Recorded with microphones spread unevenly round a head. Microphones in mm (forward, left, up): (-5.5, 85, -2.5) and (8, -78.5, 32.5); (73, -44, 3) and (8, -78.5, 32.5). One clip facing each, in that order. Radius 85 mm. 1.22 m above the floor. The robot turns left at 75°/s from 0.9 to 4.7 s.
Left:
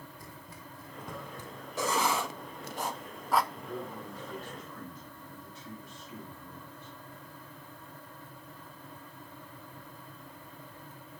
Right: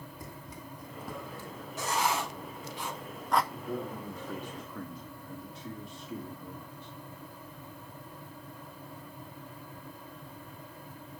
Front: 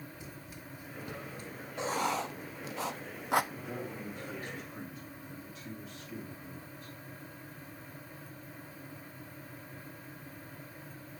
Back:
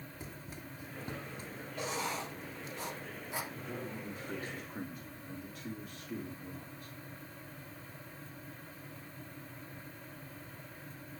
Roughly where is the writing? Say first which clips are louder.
Left 1 dB, front 6 dB; behind left.